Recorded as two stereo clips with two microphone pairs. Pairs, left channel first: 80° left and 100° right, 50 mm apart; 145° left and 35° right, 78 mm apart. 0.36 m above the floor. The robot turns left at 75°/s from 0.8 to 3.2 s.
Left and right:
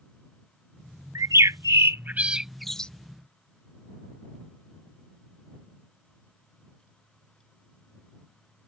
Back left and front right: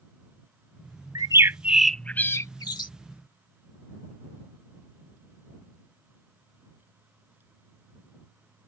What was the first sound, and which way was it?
A bird, 75° right.